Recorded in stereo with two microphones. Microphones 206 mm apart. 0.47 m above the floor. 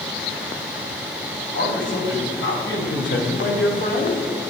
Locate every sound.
1.5 s a man speaking: 70° left (ahead or behind), 3 m; by 4.2 s 35° left (ahead or behind), 1.0 m